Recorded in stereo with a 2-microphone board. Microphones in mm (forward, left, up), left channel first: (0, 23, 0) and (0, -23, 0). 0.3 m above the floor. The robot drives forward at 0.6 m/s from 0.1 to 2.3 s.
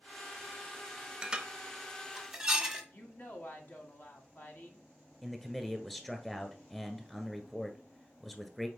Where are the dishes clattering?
15° right (ahead or behind), 0.8 m; by 2.8 s 10° right (ahead or behind), 1.3 m.